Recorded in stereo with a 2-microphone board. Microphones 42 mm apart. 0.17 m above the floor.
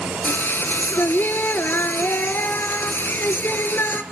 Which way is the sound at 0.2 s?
50° left (ahead or behind).